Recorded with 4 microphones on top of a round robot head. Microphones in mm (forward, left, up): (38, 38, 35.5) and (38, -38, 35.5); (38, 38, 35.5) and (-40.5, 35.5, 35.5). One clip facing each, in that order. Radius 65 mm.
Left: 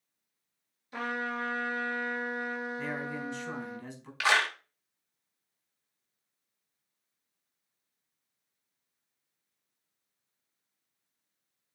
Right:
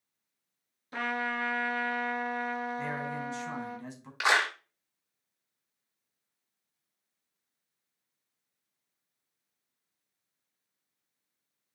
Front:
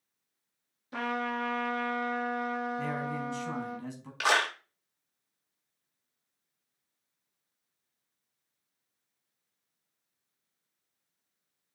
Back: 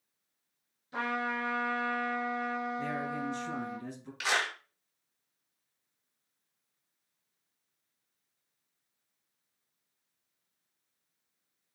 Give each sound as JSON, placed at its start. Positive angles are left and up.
{"t": 0.9, "sound": "a trumpet", "azimuth_deg": -55, "distance_m": 3.0}
{"t": 2.8, "sound": "a man speaking", "azimuth_deg": -25, "distance_m": 4.5}
{"t": 4.2, "sound": "a clap", "azimuth_deg": -25, "distance_m": 1.1}